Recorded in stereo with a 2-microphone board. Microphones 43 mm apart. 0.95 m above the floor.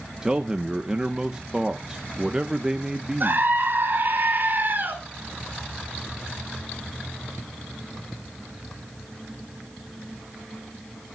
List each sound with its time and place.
0.2 s a man speaking: 15° right (ahead or behind), 0.8 m
3.2 s a scream: 50° right (ahead or behind), 3.5 m